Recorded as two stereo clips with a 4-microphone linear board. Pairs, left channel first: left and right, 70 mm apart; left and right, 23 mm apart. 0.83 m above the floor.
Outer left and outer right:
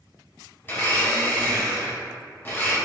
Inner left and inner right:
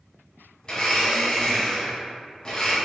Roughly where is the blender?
Left.